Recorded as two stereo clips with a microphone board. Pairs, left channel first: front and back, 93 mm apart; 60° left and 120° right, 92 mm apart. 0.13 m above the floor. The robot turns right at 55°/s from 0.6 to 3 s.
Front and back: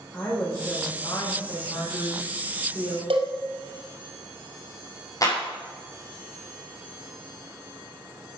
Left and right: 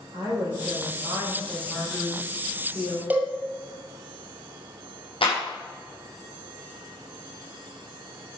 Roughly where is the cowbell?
Behind.